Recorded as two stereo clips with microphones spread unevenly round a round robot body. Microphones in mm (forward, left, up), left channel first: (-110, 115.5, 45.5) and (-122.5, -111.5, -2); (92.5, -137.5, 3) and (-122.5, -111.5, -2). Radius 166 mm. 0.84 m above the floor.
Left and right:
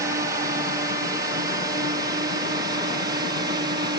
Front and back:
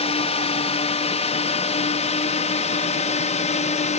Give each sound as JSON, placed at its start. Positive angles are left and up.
{"t": 0.0, "sound": "a drone", "azimuth_deg": -45}